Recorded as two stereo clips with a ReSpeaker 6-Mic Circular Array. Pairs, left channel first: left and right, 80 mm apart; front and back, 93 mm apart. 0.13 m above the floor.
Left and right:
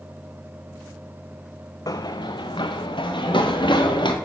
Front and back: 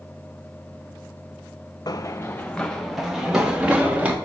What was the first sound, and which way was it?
Running footsteps, 45° left.